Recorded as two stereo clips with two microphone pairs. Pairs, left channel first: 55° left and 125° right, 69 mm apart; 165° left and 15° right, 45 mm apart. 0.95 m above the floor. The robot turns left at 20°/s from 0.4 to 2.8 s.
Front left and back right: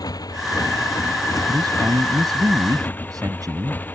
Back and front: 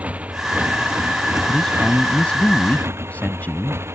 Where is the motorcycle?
40° left; by 4.0 s 5° right.